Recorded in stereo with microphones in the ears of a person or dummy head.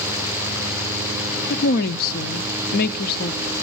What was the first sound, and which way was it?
A woman speaking, 50° left (ahead or behind).